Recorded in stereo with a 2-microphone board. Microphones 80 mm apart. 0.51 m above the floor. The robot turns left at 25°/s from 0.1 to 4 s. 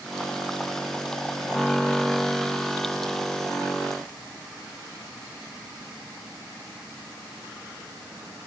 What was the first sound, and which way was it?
Only background noise.